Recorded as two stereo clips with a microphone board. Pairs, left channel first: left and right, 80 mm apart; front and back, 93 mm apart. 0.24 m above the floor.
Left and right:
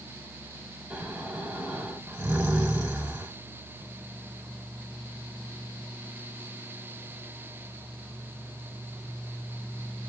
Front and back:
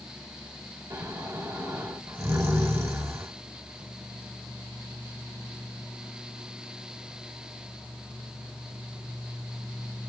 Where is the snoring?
150° right, 1.4 m.